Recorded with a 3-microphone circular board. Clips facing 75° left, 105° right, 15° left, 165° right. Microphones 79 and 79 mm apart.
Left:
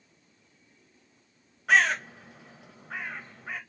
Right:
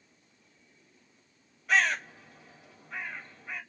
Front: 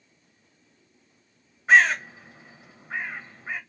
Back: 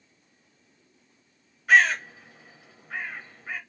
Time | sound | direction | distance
1.7 | a bird | 80° left | 1.7 m